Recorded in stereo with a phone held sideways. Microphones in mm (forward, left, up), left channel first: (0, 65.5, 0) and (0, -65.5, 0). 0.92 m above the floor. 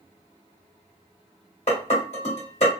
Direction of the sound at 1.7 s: 65° left (ahead or behind).